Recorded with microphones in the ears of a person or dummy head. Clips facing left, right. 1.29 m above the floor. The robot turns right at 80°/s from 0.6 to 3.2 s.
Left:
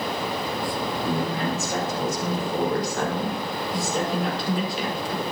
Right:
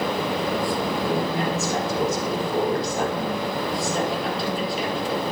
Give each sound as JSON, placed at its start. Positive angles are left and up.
{"t": 1.0, "sound": "a woman speaking", "azimuth_deg": -165, "distance_m": 4.5}